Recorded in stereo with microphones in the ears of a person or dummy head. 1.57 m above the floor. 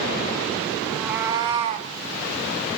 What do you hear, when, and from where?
0.8 s a cat meowing: 10° left (ahead or behind), 1.0 m; by 1.9 s 40° right (ahead or behind), 1.5 m